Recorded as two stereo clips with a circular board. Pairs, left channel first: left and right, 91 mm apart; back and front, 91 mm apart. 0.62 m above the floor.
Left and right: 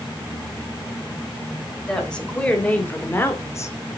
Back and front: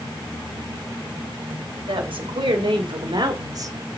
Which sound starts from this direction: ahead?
A woman speaking, at 1.9 s.